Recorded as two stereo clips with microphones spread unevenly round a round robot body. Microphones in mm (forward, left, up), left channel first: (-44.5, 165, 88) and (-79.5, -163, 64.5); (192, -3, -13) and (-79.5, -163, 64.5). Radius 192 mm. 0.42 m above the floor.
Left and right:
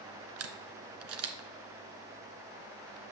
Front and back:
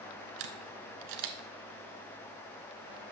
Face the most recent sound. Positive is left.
turn(degrees=-145)